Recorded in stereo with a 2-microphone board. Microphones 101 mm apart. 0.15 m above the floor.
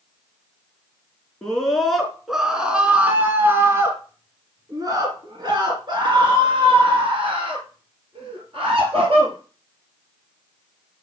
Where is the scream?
5° left (ahead or behind), 2.5 m; by 9.3 s 65° right (ahead or behind), 3.5 m.